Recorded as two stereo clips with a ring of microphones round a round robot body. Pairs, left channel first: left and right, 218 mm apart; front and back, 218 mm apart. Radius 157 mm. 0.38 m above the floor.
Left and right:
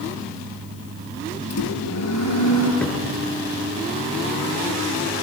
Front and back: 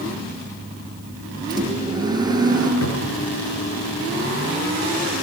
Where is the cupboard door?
5° left, 6.5 m.